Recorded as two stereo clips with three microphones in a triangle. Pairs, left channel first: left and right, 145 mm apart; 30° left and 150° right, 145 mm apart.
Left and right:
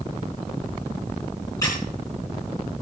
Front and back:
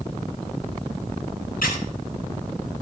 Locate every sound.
1.6 s a squeak: 25° left, 4.5 m